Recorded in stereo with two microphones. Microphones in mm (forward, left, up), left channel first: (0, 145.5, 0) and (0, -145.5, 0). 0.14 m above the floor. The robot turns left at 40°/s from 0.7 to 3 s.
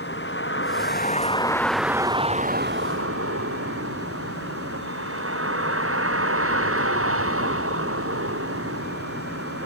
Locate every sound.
0.0 s a vehicle: 45° left; by 9.7 s 50° right